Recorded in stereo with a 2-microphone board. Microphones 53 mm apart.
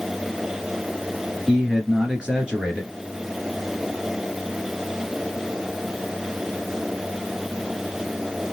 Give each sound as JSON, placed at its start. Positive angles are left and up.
{"t": 1.5, "sound": "a man speaking", "side_deg": -15, "distance_m": 1.5}